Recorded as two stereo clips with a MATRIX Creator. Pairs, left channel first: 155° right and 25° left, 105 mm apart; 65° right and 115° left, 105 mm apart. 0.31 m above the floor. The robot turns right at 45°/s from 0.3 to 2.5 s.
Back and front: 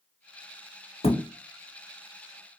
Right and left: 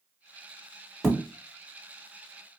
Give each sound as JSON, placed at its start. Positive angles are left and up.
{"t": 1.0, "sound": "a thud", "azimuth_deg": -150, "distance_m": 0.7}